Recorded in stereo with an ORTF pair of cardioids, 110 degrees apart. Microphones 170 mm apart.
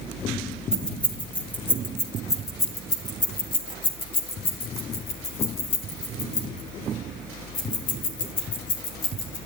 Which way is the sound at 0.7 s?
5° left.